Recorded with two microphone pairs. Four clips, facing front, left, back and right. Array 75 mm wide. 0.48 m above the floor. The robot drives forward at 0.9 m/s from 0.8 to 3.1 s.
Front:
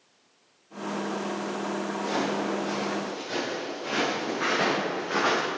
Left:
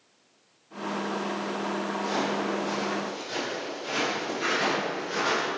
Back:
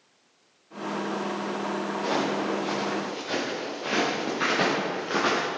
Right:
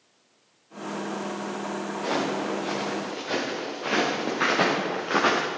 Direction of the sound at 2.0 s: 130° right.